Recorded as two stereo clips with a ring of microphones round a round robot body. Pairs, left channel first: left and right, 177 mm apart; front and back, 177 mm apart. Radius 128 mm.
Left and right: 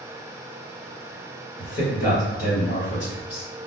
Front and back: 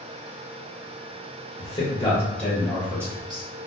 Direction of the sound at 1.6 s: 55° left.